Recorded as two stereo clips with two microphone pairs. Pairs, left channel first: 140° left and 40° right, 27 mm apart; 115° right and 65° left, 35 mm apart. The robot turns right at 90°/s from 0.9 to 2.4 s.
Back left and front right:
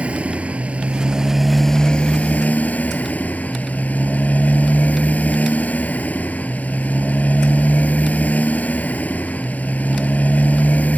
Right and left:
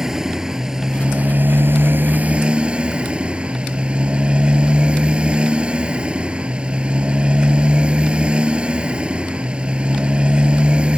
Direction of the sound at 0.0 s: 5° right.